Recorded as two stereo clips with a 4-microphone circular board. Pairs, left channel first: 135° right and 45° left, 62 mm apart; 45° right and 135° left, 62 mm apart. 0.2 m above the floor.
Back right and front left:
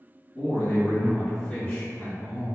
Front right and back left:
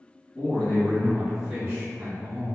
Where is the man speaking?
80° right, 1.8 m; by 2.5 s 175° left, 1.9 m.